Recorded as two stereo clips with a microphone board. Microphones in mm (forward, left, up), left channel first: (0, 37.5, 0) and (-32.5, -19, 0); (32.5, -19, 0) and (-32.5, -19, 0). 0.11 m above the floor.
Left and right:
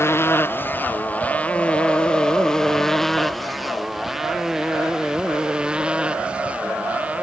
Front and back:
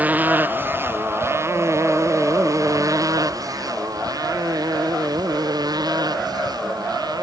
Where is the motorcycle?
115° left; by 7.2 s 170° left.